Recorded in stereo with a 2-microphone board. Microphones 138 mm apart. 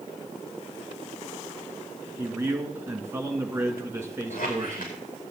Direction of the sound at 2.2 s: 20° right (ahead or behind).